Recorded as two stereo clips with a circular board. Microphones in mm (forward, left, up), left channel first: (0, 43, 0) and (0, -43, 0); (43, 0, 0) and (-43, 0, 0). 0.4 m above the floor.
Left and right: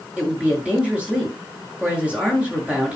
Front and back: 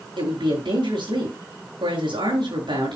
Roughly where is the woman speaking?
Behind.